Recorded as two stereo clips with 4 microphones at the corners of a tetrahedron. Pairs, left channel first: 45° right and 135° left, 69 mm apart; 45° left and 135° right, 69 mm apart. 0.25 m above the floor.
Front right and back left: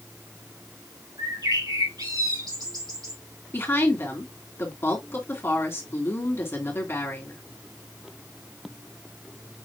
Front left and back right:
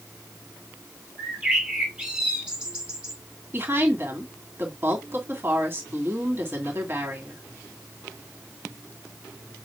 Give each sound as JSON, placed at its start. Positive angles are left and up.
{"t": 1.2, "sound": "a bird", "azimuth_deg": 145, "distance_m": 3.5}
{"t": 3.5, "sound": "a woman speaking", "azimuth_deg": -90, "distance_m": 2.5}